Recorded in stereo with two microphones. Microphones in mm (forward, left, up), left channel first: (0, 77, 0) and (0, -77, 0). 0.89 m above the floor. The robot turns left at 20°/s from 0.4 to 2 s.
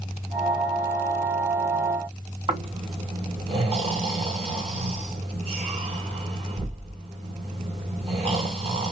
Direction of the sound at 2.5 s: 40° right (ahead or behind).